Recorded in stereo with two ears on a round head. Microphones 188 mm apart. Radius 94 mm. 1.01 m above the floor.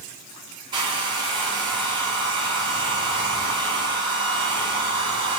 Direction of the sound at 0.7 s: 20° right (ahead or behind).